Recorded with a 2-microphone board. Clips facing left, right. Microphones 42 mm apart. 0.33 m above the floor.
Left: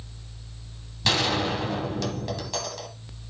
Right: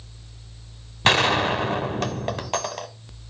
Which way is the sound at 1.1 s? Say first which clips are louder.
Right 5 dB; 45° right (ahead or behind).